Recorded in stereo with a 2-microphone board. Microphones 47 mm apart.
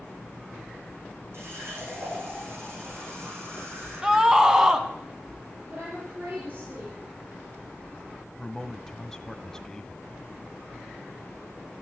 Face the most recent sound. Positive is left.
turn(degrees=15)  # may be behind; listen again after turning